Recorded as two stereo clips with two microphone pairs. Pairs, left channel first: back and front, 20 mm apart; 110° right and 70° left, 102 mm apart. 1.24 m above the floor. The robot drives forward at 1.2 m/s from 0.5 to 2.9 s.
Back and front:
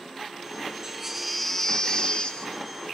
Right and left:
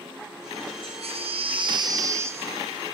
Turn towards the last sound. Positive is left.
turn(degrees=145)